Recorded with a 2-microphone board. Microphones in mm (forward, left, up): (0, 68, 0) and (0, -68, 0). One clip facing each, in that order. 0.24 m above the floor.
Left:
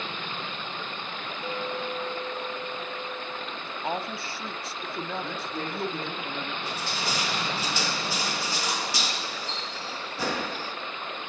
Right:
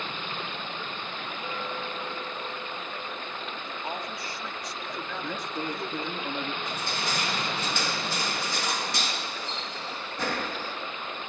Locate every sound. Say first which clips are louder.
1.4 s a clink: left 4 dB; 35° left (ahead or behind), 1.6 m
3.6 s a woman speaking: left 6 dB; 30° left (ahead or behind), 1.2 m
5.2 s a man speaking: right 1 dB; 15° right (ahead or behind), 3 m
6.6 s crushing: even; 5° left (ahead or behind), 4 m